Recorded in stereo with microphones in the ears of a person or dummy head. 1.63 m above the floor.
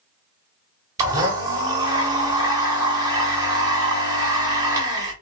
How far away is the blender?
About 0.8 m.